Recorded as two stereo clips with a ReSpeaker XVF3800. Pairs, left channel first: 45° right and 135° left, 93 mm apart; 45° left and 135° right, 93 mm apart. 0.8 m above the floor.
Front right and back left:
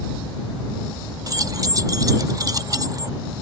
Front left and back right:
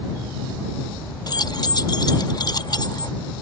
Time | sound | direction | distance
1.3 | keys jangling | 85° left | ?